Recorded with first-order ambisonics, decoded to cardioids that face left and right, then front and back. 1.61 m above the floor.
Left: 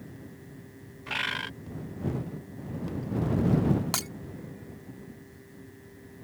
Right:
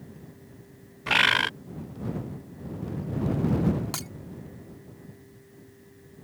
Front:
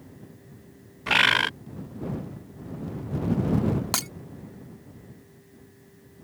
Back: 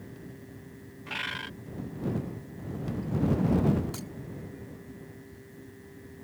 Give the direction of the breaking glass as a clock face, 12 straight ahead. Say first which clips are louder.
Left 4 dB, front 14 dB; 11 o'clock.